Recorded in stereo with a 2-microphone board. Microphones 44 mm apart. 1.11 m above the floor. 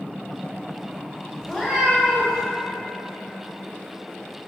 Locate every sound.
1.4 s a cat meowing: 20° left (ahead or behind), 2.0 m